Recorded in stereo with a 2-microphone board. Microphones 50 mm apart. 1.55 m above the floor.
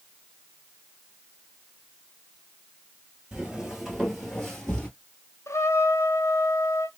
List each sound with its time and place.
3.3 s footsteps: 10° right (ahead or behind), 1.6 m; by 4.9 s 15° left (ahead or behind), 1.6 m
5.5 s a trumpet: 85° left, 0.5 m